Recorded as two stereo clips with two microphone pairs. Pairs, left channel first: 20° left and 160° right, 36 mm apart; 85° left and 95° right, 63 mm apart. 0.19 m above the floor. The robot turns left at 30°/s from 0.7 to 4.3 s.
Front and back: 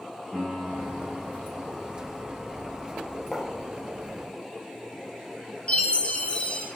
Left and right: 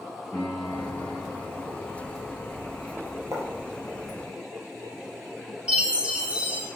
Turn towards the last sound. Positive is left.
turn(degrees=-30)